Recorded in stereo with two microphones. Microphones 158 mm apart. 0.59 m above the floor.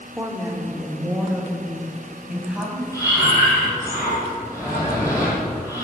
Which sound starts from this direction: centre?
A woman speaking, at 0.2 s.